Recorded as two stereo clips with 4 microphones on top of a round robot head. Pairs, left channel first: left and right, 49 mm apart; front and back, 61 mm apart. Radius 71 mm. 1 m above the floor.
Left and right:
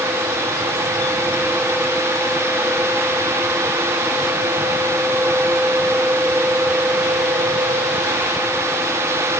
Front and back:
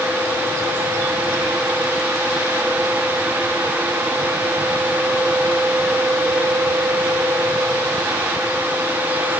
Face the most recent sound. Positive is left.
No sound to turn to.